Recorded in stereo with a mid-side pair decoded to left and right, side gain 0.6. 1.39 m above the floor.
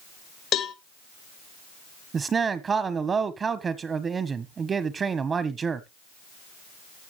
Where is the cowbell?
55° left, 1.4 m.